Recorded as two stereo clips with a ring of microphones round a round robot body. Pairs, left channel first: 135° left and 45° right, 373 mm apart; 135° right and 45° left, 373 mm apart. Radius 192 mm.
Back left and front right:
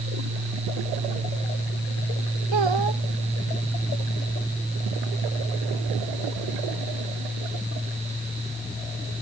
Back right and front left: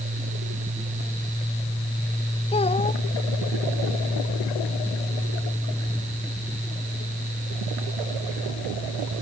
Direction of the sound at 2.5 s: 60° right.